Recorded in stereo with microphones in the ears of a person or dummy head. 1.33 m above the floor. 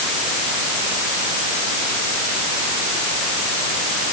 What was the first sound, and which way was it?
Only background noise.